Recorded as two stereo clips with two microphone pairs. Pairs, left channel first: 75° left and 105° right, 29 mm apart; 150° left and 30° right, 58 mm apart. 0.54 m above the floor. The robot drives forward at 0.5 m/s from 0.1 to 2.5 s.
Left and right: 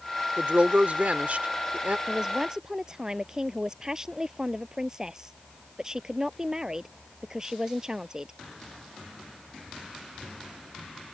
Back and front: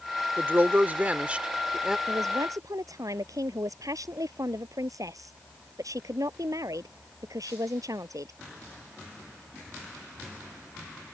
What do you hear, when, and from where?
0.4 s a woman speaking: 75° right; by 2.0 s 110° right
2.1 s a man speaking: 35° right